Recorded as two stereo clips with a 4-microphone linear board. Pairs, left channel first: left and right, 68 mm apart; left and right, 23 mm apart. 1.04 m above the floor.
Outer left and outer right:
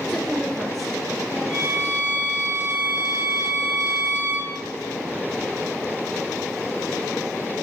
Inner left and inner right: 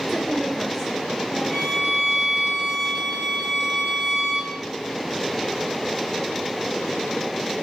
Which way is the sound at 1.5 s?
10° right (ahead or behind).